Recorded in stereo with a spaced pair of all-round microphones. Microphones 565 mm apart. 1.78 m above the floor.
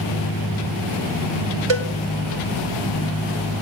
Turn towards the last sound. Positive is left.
turn(degrees=-55)  # may be behind; listen again after turning